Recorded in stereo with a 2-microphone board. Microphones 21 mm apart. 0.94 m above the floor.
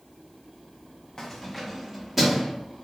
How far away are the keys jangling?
About 0.6 m.